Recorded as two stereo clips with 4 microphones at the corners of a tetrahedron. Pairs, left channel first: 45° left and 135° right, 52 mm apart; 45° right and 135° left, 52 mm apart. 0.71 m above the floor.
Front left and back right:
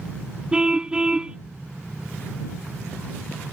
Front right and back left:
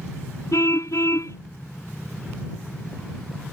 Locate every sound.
0.5 s a car horn: 60° right